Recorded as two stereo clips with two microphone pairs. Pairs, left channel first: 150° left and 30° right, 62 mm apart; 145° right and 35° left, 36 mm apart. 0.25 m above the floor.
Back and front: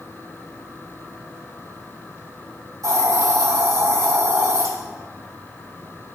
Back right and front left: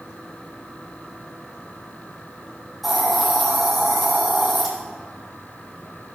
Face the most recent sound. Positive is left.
turn(degrees=-55)